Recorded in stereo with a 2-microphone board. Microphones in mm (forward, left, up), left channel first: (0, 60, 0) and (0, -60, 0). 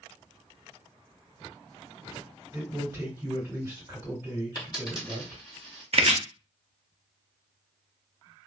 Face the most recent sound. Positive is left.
turn(degrees=-55)  # may be behind; listen again after turning